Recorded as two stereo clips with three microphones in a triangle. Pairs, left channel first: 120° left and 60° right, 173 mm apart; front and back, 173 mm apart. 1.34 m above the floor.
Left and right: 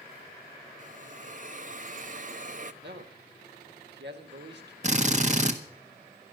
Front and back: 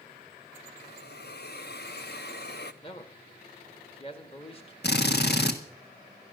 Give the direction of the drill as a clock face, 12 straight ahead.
12 o'clock.